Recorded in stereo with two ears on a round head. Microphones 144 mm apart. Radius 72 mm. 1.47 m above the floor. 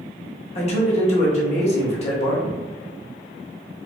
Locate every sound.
0.6 s a man speaking: 40° left (ahead or behind), 0.9 m